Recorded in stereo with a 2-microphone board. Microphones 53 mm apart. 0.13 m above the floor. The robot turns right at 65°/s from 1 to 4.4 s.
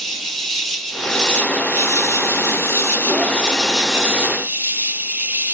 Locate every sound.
0.0 s an insect: straight ahead, 1.1 m; by 5.5 s 135° right, 1.1 m